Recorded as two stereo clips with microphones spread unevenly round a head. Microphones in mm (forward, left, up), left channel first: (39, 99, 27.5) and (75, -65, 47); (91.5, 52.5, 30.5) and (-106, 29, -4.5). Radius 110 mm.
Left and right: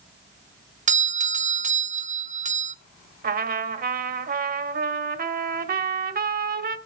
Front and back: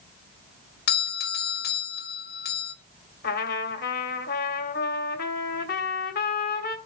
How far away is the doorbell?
About 1.0 m.